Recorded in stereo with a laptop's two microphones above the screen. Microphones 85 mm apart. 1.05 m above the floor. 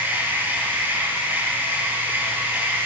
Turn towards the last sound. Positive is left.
turn(degrees=-25)  # may be behind; listen again after turning